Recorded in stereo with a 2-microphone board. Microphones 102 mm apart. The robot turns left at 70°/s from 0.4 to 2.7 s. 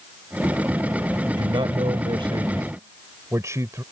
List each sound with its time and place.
1.2 s a man speaking: 45° right; by 3.8 s 145° right